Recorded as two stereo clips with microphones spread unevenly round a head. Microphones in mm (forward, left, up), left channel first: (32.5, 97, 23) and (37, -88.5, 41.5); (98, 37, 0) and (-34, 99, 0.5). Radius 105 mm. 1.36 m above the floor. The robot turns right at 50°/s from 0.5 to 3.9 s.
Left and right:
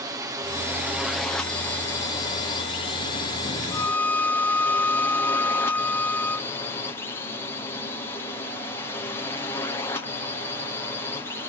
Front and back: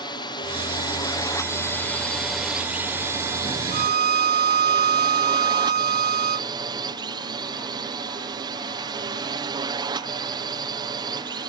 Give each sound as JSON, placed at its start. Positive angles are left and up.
{"t": 0.0, "sound": "a drone", "azimuth_deg": -25}
{"t": 3.7, "sound": "a violin", "azimuth_deg": 165}